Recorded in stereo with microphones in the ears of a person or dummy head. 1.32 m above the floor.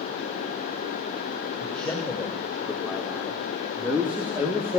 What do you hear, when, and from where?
1.6 s a man speaking: centre (ahead or behind), 5.5 m; by 4.8 s 15° right (ahead or behind), 3 m